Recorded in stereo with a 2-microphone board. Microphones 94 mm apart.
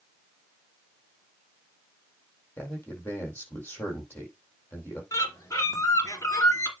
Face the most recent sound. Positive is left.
turn(degrees=30)  # may be behind; listen again after turning